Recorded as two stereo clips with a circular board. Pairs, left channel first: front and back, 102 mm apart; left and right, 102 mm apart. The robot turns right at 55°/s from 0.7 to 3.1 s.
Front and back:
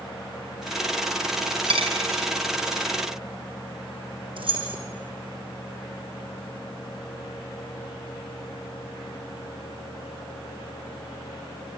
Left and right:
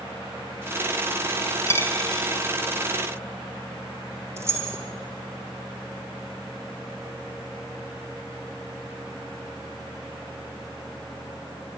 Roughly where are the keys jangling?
Behind right.